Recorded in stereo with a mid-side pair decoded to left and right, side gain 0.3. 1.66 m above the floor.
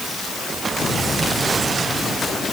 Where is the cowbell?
I don't hear a cowbell.